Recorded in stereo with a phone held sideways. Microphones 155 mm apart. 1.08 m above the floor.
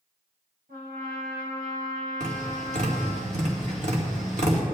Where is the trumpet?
80° right, 3.5 m.